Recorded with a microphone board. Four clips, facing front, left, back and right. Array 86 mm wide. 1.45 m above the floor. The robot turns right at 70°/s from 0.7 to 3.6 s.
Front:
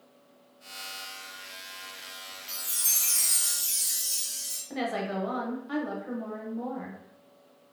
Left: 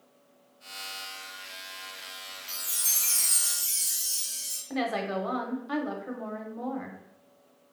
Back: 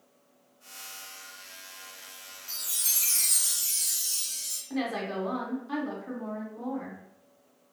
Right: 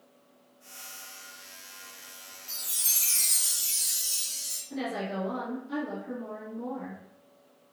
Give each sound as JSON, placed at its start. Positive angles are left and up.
{"t": 2.5, "sound": "a chime", "azimuth_deg": -175, "distance_m": 1.3}
{"t": 4.7, "sound": "a woman speaking", "azimuth_deg": 75, "distance_m": 0.7}